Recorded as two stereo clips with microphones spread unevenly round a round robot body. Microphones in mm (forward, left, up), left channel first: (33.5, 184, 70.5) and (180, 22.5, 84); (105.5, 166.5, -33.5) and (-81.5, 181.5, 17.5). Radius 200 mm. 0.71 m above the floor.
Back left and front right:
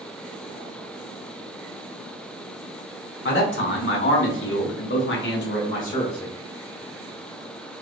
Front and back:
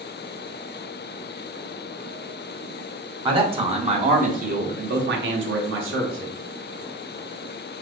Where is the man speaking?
105° left, 2 m; by 6.3 s 160° right, 1.3 m.